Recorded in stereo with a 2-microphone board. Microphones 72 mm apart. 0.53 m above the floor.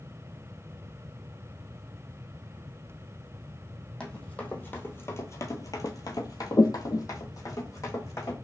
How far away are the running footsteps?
About 1.2 m.